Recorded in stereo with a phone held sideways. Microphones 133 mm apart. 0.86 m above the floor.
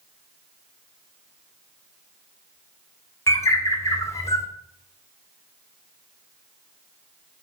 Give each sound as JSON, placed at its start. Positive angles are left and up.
{"t": 3.3, "sound": "a bird", "side_deg": 20, "distance_m": 1.8}